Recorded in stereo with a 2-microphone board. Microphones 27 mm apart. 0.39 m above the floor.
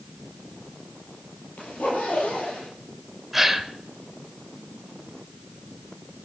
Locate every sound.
1.6 s a zipper: 80° left, 10 m
3.3 s a gasp: 5° right (ahead or behind), 1.4 m